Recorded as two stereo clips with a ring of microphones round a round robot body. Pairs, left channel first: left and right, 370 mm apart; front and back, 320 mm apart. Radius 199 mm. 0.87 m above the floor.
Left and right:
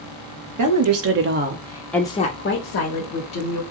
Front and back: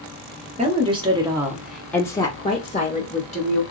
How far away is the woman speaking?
About 1.1 m.